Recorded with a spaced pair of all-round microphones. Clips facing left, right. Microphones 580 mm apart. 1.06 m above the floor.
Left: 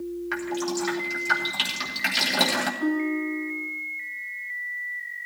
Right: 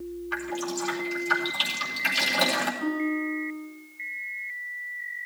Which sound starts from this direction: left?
Dripping, at 0.3 s.